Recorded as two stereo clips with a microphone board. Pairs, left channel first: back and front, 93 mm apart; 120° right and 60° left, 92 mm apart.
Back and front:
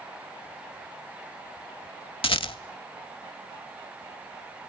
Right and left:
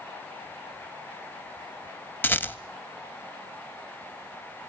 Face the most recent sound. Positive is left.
turn(degrees=175)